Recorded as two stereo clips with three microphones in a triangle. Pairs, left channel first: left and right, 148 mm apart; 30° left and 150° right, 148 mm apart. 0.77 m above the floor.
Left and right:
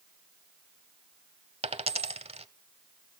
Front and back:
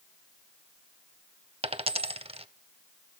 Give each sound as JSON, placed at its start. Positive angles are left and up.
{"t": 1.6, "sound": "a dropped coin", "azimuth_deg": -120, "distance_m": 0.8}